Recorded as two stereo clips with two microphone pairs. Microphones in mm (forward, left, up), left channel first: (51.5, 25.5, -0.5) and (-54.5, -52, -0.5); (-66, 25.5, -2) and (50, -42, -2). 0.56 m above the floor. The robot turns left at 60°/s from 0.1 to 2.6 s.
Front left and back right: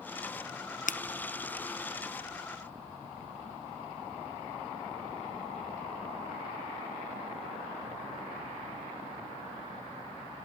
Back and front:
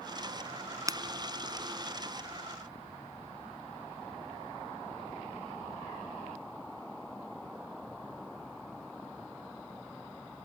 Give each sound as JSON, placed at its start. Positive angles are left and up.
{"t": 0.9, "sound": "breaking glass", "azimuth_deg": 35}